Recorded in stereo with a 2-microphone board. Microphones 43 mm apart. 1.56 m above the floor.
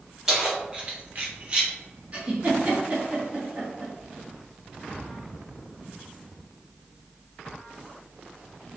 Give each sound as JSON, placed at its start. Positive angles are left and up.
{"t": 0.3, "sound": "keys jangling", "side_deg": -10, "distance_m": 1.3}
{"t": 2.1, "sound": "a giggle", "side_deg": -30, "distance_m": 1.1}